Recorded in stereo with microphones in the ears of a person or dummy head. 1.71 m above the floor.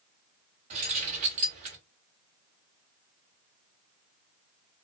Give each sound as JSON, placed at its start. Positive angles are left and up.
{"t": 0.7, "sound": "keys jangling", "side_deg": -40, "distance_m": 1.2}